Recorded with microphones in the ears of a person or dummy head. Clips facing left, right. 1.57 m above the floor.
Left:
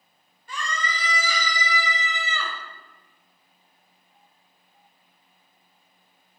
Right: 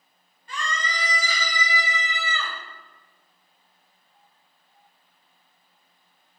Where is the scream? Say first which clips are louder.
Even; 80° left, 3 m; by 2.5 s 60° left (ahead or behind), 1.4 m.